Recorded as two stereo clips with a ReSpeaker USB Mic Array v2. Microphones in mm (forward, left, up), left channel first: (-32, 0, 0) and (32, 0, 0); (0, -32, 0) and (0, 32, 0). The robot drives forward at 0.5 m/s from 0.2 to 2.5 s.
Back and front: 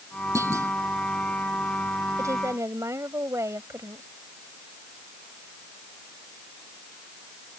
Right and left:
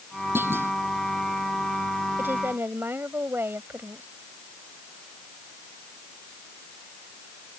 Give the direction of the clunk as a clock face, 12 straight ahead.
11 o'clock.